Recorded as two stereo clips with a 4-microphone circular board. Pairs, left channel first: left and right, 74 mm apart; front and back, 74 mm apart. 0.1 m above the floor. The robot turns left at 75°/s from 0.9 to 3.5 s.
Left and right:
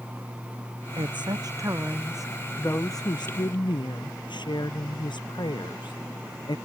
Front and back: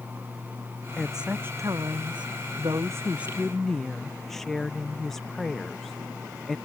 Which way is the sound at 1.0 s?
85° right.